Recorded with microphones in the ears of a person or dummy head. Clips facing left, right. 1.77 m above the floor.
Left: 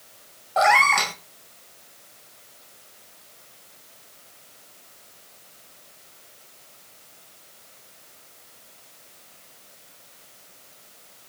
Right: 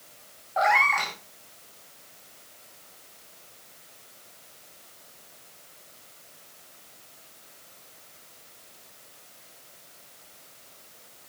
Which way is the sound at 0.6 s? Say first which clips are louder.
Left 4 dB; 55° left (ahead or behind).